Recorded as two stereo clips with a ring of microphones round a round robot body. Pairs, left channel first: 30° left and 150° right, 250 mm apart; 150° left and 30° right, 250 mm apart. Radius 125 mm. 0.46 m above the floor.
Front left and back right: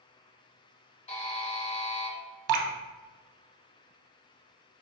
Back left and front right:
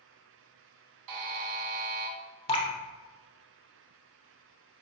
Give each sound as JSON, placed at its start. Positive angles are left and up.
{"t": 1.1, "sound": "a buzzer", "azimuth_deg": -35, "distance_m": 0.7}
{"t": 2.5, "sound": "dripping", "azimuth_deg": -140, "distance_m": 0.6}